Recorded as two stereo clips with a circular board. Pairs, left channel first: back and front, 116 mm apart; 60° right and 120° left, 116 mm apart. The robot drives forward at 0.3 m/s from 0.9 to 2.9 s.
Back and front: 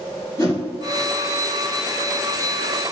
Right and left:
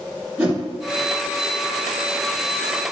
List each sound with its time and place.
0.4 s a whoosh: 170° right, 1.5 m